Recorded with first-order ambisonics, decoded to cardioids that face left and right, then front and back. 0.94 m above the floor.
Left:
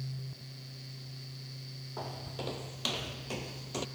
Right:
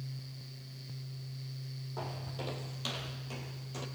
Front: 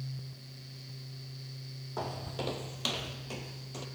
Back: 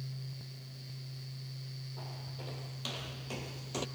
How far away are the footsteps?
About 1.7 m.